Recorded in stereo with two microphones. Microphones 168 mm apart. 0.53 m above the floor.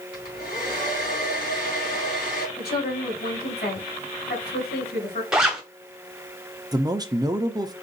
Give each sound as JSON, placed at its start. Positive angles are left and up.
{"t": 0.1, "sound": "a hair dryer", "side_deg": 55, "distance_m": 3.5}
{"t": 2.6, "sound": "a woman speaking", "side_deg": 70, "distance_m": 3.5}
{"t": 5.3, "sound": "a zipper", "side_deg": -5, "distance_m": 1.2}
{"t": 6.7, "sound": "a man speaking", "side_deg": -25, "distance_m": 0.6}